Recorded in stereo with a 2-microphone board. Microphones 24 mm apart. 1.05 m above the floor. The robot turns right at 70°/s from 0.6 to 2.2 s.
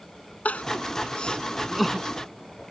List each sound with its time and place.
0.5 s crying: 85° left; by 2.1 s 20° right (ahead or behind)